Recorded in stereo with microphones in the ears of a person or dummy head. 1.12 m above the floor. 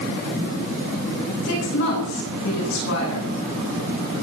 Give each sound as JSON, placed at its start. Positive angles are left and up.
{"t": 1.4, "sound": "a woman speaking", "side_deg": 75, "distance_m": 10.0}